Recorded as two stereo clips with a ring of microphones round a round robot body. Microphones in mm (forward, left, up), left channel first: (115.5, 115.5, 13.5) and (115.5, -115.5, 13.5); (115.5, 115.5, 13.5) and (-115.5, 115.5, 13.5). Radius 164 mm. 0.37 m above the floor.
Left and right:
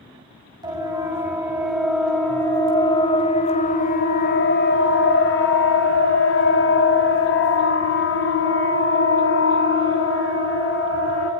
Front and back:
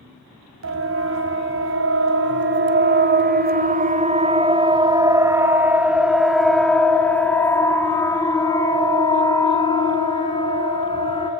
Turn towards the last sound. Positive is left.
turn(degrees=65)